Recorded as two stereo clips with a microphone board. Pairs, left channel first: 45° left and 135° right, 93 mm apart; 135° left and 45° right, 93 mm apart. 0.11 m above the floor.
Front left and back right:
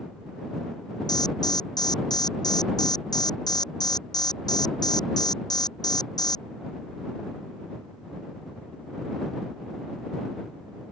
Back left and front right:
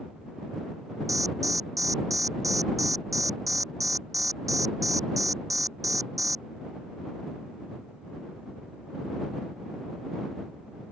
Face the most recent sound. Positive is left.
turn(degrees=5)